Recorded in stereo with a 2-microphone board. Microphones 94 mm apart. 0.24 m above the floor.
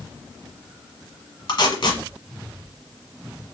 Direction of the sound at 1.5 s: 55° left (ahead or behind).